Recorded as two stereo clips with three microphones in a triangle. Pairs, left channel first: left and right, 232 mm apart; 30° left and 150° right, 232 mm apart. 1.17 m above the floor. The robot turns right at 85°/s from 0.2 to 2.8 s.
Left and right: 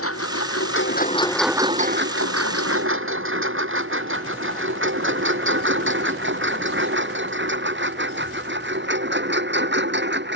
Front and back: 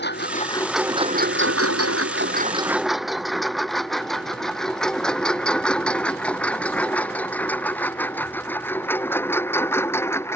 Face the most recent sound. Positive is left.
turn(degrees=-50)